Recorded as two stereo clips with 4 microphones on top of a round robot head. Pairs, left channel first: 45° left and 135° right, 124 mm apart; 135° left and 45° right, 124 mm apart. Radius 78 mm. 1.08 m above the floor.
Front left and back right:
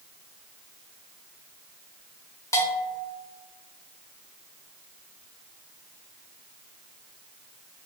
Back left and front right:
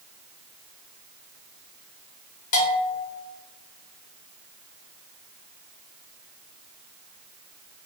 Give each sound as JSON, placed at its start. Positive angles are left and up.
{"t": 2.5, "sound": "a bell", "azimuth_deg": 110, "distance_m": 0.7}